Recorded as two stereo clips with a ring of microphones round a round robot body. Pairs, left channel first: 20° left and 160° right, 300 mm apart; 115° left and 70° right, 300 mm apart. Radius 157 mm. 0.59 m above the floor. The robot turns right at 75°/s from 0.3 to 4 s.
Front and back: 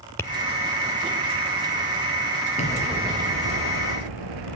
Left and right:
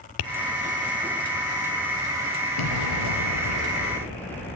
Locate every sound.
0.2 s tapping: 105° left, 1.4 m
2.6 s an explosion: 90° left, 4.5 m; by 4.5 s 165° right, 4.5 m